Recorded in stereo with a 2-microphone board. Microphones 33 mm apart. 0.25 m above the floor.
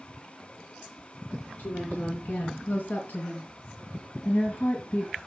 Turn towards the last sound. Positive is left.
turn(degrees=45)  # may be behind; listen again after turning